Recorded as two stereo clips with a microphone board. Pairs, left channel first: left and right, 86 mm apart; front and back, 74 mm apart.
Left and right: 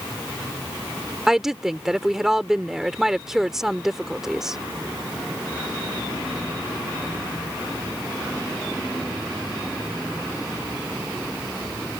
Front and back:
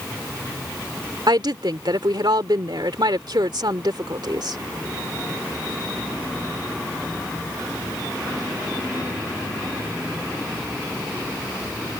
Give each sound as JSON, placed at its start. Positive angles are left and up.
{"t": 1.3, "sound": "a woman speaking", "azimuth_deg": -175}